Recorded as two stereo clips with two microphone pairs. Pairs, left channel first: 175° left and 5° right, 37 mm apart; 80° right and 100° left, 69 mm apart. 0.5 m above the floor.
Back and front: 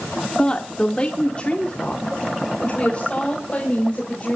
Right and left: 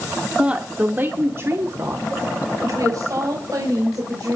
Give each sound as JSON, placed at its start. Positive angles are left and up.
{"t": 0.4, "sound": "a woman speaking", "azimuth_deg": 150, "distance_m": 1.4}